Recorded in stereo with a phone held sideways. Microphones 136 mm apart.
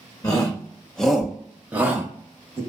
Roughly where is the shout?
Left.